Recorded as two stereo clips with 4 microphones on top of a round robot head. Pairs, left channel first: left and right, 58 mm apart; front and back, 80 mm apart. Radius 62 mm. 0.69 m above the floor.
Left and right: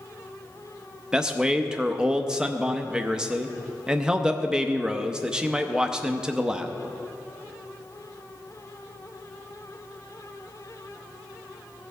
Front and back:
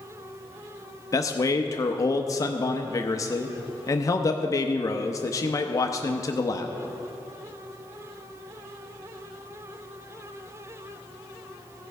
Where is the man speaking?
15° right, 0.6 m.